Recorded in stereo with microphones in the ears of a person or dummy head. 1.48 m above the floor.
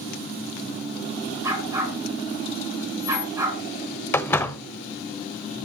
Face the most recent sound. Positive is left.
turn(degrees=5)  # may be behind; listen again after turning